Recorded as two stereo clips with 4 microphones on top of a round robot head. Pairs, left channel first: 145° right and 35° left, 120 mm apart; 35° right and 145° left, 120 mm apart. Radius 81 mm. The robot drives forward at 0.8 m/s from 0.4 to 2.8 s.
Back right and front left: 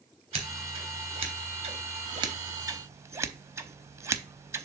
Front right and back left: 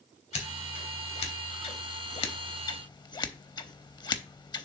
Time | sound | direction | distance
0.3 | scissors | 5° right | 2.5 m